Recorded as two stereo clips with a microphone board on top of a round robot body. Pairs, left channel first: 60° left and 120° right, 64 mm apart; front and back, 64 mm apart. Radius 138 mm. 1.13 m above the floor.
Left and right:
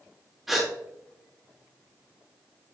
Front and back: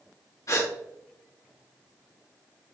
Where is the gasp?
35° right, 2 m.